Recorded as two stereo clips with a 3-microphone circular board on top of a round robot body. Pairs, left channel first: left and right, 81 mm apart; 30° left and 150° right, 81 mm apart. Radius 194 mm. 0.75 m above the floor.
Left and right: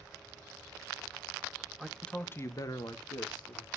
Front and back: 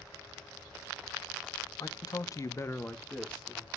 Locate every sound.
1.8 s a man speaking: 5° right, 1.5 m; by 3.7 s 115° left, 2.5 m